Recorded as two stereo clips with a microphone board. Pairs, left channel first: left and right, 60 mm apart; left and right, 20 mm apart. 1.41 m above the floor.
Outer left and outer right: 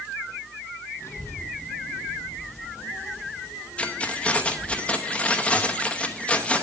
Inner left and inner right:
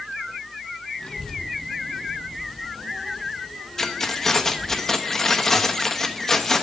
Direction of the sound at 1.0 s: 55° left (ahead or behind).